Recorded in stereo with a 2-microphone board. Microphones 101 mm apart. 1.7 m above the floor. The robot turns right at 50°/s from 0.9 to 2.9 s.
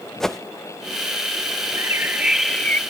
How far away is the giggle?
No giggle in this recording.